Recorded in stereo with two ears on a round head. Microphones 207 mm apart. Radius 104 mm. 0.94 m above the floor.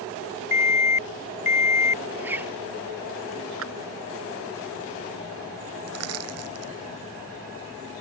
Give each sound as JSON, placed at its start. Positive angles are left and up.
{"t": 0.5, "sound": "an alarm", "side_deg": 30}
{"t": 2.2, "sound": "a zipper", "side_deg": -10}
{"t": 3.6, "sound": "a clap", "side_deg": -65}
{"t": 5.9, "sound": "crushing", "side_deg": -70}